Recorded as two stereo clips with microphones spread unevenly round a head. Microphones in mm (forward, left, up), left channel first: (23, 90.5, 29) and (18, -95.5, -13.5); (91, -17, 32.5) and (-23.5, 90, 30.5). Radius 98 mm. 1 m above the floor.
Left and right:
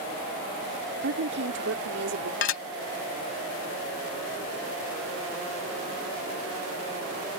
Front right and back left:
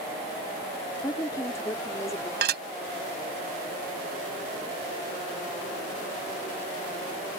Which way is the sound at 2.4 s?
125° left.